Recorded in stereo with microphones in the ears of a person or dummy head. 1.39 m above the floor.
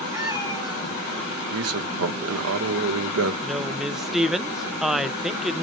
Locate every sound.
0.1 s a cat meowing: 10° right (ahead or behind), 5 m
1.5 s a man speaking: 70° right (ahead or behind), 1.0 m
3.4 s a woman speaking: centre (ahead or behind), 0.5 m